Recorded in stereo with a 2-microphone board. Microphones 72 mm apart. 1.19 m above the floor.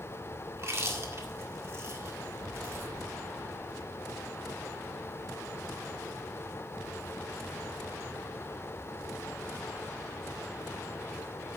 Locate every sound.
0.5 s chewing: 40° right (ahead or behind), 1.8 m